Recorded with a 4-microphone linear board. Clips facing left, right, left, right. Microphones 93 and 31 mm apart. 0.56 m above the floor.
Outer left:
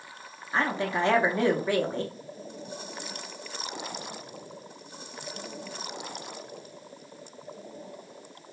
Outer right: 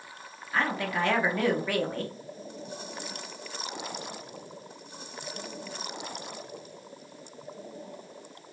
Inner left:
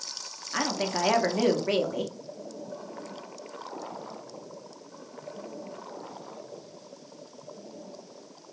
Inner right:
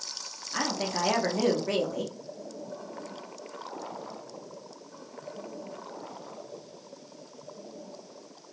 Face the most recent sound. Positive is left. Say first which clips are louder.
# outer left 1 dB, inner left 2 dB
turn(degrees=25)  # may be behind; listen again after turning